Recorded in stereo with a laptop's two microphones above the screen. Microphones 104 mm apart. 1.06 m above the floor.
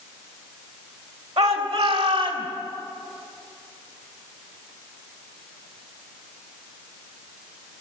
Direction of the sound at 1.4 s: 80° right.